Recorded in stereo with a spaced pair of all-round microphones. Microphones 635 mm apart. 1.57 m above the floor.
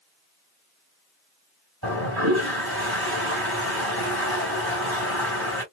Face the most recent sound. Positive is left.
turn(degrees=-35)  # may be behind; listen again after turning